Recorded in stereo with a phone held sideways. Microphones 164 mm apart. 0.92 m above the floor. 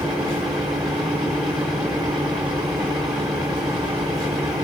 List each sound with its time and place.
0.0 s a fan: 5° right (ahead or behind), 4.5 m